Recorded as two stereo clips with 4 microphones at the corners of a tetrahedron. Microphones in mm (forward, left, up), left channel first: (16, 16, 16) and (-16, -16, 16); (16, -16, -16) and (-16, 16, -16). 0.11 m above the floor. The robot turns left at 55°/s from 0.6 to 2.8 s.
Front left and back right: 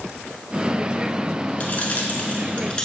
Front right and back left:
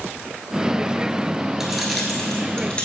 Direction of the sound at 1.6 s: 60° left.